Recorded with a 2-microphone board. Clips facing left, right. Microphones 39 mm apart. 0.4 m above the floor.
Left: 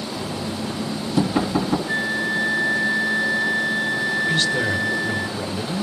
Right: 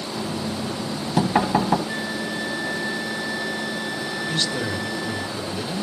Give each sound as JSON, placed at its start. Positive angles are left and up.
{"t": 0.1, "sound": "knocking", "side_deg": -60, "distance_m": 2.5}
{"t": 1.9, "sound": "a flute", "side_deg": 25, "distance_m": 0.8}
{"t": 4.3, "sound": "a woman speaking", "side_deg": 15, "distance_m": 1.5}